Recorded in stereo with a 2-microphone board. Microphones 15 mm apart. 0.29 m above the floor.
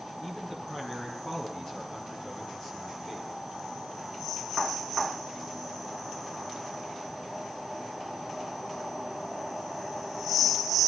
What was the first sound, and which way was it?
A man speaking, 35° left (ahead or behind).